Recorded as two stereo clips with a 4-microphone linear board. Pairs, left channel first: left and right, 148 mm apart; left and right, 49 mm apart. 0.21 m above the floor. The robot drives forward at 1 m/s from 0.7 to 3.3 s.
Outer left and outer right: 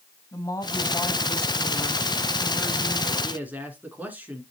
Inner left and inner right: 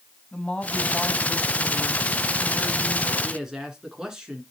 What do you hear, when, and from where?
0.3 s a woman speaking: 25° left (ahead or behind), 1.1 m; by 3.1 s 10° left (ahead or behind), 2.5 m
3.2 s a man speaking: 10° right (ahead or behind), 2.5 m